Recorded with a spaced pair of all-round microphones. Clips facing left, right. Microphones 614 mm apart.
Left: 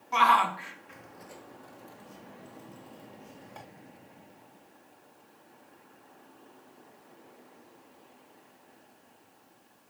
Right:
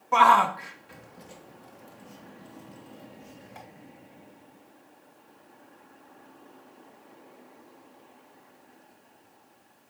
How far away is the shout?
About 0.9 m.